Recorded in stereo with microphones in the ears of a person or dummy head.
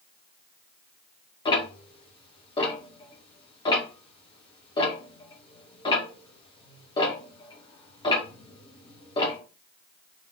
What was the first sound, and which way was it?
Ticking, 25° left (ahead or behind).